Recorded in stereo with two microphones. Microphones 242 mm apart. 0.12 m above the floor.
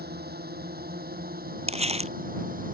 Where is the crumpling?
25° right (ahead or behind).